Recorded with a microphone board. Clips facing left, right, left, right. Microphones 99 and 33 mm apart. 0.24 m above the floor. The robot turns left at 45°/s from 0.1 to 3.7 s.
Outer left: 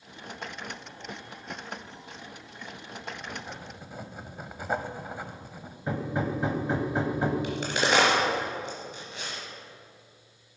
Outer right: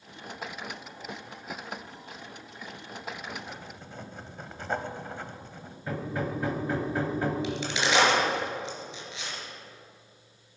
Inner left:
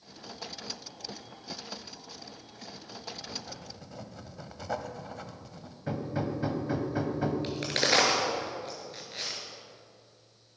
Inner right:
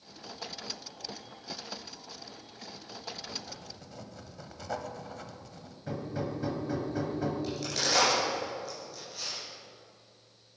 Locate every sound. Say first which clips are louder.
3.2 s writing: even, inner left 1 dB; 15° left (ahead or behind), 1.0 m; by 5.8 s 10° left (ahead or behind), 1.0 m
5.9 s hammering: outer left 2 dB, inner left 3 dB; 20° left (ahead or behind), 1.4 m
7.4 s a crack: outer left 2 dB, inner left 4 dB; 50° left (ahead or behind), 3.5 m